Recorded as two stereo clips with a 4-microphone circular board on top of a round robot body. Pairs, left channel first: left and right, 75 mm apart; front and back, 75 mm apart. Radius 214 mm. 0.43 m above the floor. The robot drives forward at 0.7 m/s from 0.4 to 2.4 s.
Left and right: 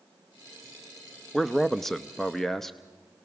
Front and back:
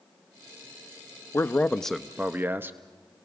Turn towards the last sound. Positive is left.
turn(degrees=170)